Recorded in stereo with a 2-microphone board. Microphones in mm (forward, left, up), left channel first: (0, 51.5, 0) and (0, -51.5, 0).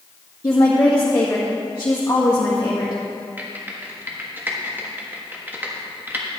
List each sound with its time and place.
0.4 s a woman speaking: 35° left (ahead or behind), 1.8 m
3.4 s typing on a keyboard: 20° right (ahead or behind), 1.5 m